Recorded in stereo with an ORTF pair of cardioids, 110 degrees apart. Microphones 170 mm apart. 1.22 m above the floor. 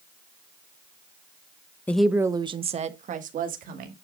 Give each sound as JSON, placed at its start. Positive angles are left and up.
{"t": 1.9, "sound": "a woman speaking", "azimuth_deg": 10, "distance_m": 0.8}